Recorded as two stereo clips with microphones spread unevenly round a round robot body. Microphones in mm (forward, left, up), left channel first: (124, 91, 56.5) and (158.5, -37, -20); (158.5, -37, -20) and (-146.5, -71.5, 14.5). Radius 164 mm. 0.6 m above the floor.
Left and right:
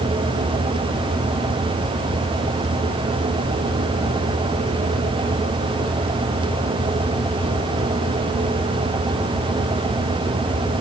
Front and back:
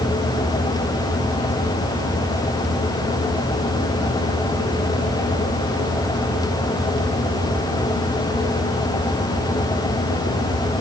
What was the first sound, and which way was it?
Only background noise.